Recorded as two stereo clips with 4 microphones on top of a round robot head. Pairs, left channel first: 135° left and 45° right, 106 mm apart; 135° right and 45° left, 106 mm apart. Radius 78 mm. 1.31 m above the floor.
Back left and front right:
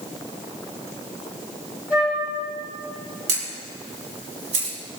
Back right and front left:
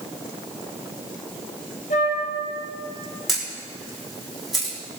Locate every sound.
1.9 s a flute: 125° right, 4.5 m
3.3 s a camera shutter: 40° right, 4.5 m